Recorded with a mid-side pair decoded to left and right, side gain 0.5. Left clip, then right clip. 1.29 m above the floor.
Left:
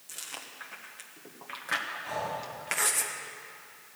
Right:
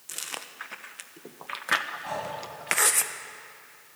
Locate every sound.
0.1 s chewing: 45° right, 0.9 m
2.0 s breathing: 65° right, 6.5 m